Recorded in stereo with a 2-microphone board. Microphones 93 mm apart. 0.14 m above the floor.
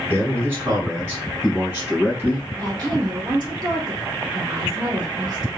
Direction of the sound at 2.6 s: 45° right (ahead or behind).